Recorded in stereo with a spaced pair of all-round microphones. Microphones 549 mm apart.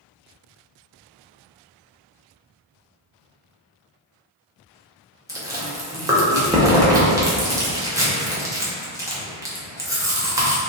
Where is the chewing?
5° right (ahead or behind), 0.7 m.